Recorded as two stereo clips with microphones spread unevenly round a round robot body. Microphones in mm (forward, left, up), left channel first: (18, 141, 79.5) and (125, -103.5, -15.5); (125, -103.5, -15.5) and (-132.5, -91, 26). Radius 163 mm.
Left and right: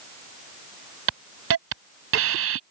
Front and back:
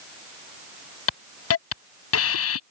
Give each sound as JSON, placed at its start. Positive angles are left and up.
{"t": 1.1, "sound": "a hiss", "azimuth_deg": -30}